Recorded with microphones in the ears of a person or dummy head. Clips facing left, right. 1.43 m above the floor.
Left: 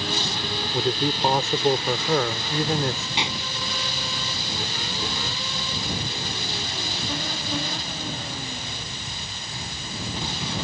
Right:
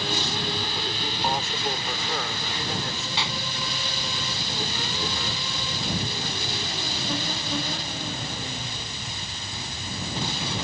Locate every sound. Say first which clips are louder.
0.7 s a man speaking: left 8 dB; 50° left (ahead or behind)
3.2 s a pop: left 2 dB; 15° left (ahead or behind)